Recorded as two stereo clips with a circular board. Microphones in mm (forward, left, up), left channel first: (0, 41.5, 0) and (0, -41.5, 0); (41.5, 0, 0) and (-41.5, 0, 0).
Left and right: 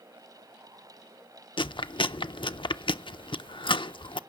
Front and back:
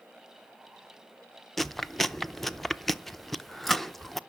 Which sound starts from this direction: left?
Chewing, at 1.6 s.